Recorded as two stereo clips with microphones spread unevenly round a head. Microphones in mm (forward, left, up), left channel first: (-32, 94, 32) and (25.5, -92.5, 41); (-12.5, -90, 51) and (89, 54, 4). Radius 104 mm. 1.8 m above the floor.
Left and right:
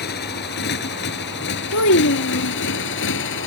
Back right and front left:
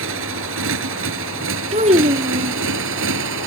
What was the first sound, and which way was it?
A motorcycle, 65° left.